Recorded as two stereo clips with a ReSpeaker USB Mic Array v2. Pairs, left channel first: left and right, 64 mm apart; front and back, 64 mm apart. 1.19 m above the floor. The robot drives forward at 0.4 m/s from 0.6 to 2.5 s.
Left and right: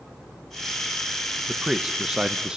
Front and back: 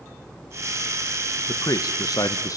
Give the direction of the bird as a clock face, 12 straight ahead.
I don't hear a bird.